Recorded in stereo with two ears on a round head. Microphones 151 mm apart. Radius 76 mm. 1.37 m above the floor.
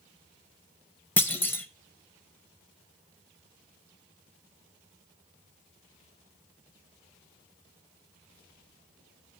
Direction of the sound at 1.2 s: 10° left (ahead or behind).